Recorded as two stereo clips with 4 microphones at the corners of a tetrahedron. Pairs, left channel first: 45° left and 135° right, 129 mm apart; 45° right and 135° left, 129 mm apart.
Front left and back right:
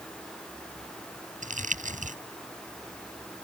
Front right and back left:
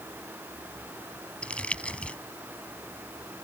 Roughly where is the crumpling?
Behind right.